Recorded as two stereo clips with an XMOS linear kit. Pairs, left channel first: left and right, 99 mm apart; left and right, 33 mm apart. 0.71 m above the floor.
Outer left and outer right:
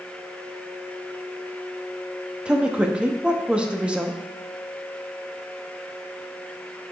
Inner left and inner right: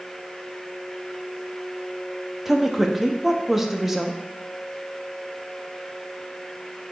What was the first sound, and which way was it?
A woman speaking, 10° right (ahead or behind).